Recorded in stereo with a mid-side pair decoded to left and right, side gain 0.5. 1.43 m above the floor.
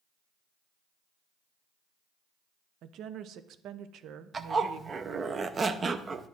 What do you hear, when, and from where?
2.8 s a woman speaking: 65° right, 0.5 m
4.3 s a zipper: 35° right, 0.6 m